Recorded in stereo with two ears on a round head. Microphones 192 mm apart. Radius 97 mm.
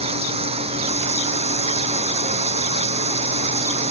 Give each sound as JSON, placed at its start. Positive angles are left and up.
{"t": 0.0, "sound": "running water", "side_deg": -30}